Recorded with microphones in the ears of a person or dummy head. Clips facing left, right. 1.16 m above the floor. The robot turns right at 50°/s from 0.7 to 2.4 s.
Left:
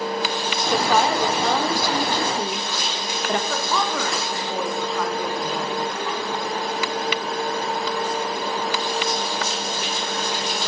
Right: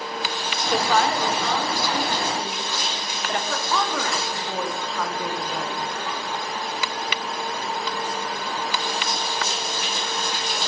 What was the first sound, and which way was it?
A woman speaking, 5° left.